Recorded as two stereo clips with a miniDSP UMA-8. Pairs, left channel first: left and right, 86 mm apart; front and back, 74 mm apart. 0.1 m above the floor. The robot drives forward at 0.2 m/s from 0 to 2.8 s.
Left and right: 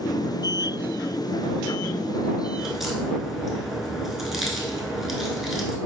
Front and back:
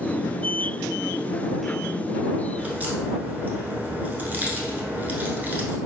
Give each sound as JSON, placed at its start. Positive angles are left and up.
{"t": 2.6, "sound": "a crack", "azimuth_deg": -170, "distance_m": 0.9}